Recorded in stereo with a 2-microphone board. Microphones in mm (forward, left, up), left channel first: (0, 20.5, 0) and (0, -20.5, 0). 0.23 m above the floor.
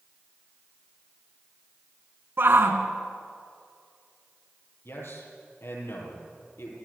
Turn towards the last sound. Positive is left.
turn(degrees=75)  # may be behind; listen again after turning